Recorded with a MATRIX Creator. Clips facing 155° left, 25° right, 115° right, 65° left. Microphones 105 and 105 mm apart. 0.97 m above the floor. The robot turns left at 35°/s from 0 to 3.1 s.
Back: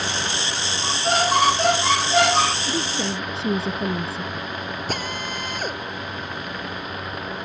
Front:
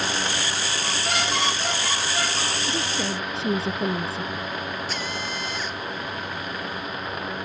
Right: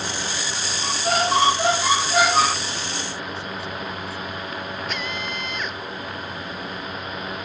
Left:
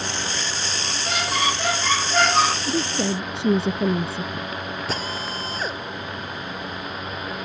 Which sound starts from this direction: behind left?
A drill, at 4.9 s.